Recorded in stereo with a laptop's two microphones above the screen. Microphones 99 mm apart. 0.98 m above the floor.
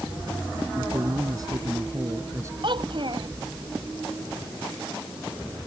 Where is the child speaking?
55° right (ahead or behind).